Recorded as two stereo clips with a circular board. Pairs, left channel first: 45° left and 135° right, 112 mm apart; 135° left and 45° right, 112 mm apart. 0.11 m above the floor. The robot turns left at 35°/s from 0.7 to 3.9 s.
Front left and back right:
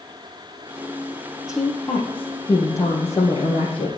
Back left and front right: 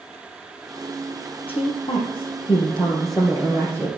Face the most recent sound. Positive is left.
turn(degrees=60)